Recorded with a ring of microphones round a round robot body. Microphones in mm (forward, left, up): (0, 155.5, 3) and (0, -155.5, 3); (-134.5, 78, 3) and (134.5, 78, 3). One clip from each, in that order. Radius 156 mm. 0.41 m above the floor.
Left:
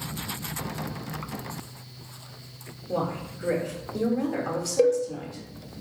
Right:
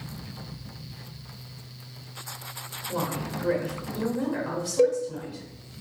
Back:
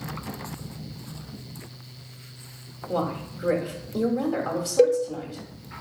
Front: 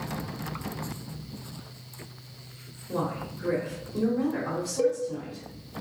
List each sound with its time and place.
2.9 s a woman speaking: 150° left, 1.2 m
4.8 s a cowbell: 175° left, 0.7 m